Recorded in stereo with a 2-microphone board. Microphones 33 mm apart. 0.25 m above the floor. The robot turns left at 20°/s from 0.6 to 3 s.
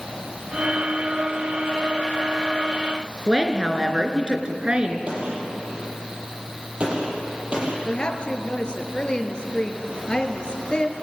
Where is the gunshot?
40° right (ahead or behind), 8 m.